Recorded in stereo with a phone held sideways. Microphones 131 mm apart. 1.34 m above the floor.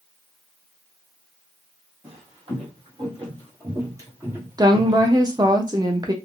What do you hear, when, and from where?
2.0 s footsteps: 50° right (ahead or behind), 2.0 m; by 5.6 s 5° left (ahead or behind), 1.4 m
4.6 s a woman speaking: 30° right (ahead or behind), 0.6 m